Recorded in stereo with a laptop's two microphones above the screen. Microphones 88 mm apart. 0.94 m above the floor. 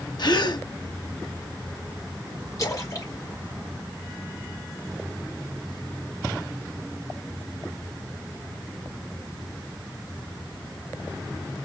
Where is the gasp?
60° left (ahead or behind), 1.3 m.